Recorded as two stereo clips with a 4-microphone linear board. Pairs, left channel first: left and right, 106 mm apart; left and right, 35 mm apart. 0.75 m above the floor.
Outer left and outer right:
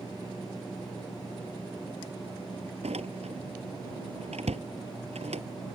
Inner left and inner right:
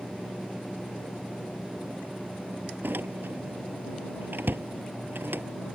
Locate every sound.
2.8 s a door slam: 85° right